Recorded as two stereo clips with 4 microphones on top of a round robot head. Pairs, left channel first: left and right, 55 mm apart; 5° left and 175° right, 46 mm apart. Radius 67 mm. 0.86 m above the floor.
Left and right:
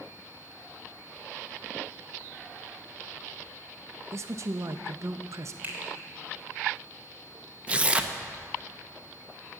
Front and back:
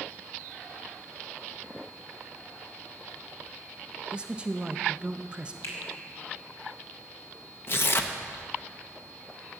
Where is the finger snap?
30° right, 3 m.